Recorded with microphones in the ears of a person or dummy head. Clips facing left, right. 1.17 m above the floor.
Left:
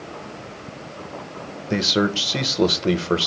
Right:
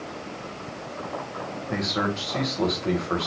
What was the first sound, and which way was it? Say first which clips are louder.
A man speaking: left 7 dB; 40° left (ahead or behind).